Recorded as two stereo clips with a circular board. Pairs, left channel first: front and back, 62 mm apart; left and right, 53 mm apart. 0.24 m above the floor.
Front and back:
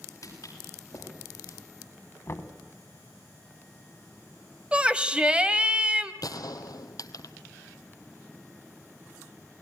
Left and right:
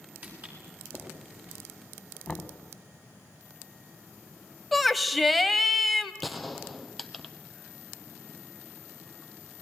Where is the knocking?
20° left, 1.5 m.